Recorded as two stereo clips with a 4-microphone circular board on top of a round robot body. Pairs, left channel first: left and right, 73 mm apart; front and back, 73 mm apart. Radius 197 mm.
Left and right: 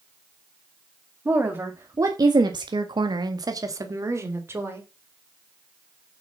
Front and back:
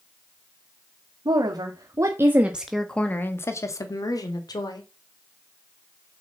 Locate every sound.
1.2 s a woman speaking: 150° right, 2.5 m; by 4.8 s 30° right, 3.5 m